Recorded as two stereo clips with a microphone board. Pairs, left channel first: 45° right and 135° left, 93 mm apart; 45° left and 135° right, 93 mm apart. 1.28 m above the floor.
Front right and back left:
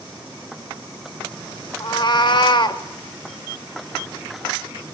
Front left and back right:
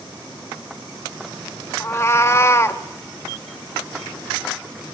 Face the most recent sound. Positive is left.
turn(degrees=-15)